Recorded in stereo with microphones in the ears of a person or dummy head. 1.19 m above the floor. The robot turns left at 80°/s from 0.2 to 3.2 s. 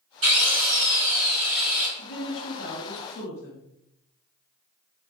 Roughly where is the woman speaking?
Behind left.